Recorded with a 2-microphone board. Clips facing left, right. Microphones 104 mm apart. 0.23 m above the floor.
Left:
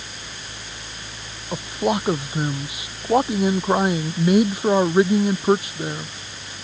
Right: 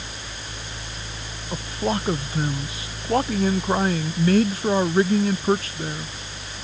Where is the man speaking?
15° left (ahead or behind).